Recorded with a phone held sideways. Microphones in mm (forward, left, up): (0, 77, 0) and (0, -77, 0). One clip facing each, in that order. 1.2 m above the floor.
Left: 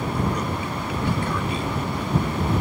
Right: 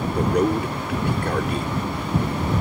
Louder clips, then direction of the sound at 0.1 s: Right 6 dB; 60° right (ahead or behind).